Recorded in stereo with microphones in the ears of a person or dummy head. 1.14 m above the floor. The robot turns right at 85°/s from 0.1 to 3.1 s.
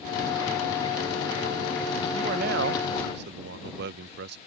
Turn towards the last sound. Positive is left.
turn(degrees=-65)